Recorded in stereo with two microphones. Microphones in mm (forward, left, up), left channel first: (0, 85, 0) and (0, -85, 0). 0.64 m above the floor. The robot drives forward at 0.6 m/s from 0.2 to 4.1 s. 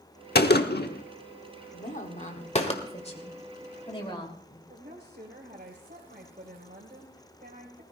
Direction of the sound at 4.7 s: 65° right (ahead or behind).